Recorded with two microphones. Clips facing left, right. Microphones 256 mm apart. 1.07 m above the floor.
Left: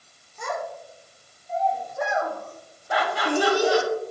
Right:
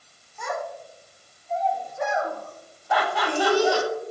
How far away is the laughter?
About 1.9 m.